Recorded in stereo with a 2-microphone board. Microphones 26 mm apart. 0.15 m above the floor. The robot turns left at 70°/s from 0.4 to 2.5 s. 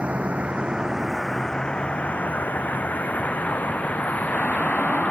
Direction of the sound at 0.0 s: 50° right (ahead or behind).